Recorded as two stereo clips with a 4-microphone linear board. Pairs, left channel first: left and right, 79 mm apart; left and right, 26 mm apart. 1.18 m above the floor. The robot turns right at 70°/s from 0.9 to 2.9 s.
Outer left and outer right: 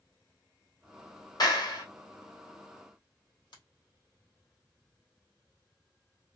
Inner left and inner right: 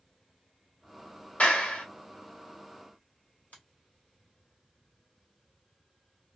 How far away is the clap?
About 1.5 m.